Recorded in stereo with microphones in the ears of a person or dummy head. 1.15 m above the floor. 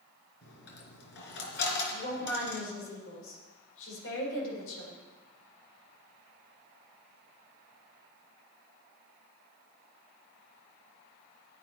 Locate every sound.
0.4 s a dropped coin: 60° left (ahead or behind), 3.5 m
1.9 s a woman speaking: 75° left (ahead or behind), 4 m